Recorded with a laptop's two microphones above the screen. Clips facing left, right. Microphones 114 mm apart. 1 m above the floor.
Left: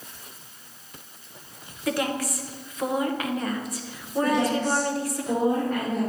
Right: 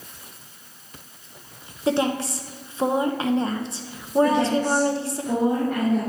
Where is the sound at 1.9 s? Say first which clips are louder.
Right 4 dB; 25° right (ahead or behind), 0.7 m.